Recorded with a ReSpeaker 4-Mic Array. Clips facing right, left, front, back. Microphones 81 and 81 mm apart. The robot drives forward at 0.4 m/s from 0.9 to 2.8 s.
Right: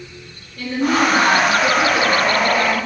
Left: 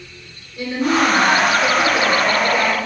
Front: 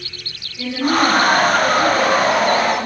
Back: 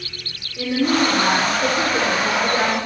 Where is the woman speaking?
170° left, 3.5 m.